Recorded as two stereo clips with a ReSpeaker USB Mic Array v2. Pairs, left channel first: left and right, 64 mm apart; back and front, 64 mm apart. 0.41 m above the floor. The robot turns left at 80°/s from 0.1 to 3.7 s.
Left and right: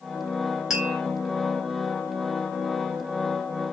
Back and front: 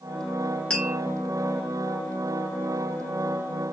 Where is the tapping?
150° right, 1.1 m; by 1.0 s 170° right, 1.1 m.